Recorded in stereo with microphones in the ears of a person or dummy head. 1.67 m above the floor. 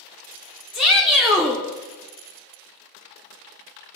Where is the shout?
Centre (ahead or behind), 0.5 m.